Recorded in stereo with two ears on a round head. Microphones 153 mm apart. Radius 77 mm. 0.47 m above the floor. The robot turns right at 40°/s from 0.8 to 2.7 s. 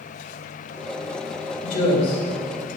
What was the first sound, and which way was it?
A woman speaking, 50° left (ahead or behind).